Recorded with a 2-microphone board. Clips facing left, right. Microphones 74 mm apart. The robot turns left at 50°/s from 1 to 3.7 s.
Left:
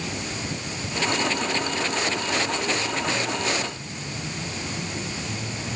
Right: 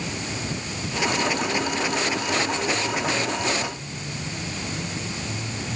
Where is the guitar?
I don't hear a guitar.